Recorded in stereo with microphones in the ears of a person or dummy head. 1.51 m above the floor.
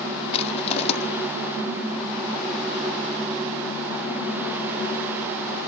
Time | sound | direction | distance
0.3 | crushing | 35° left (ahead or behind) | 1.7 m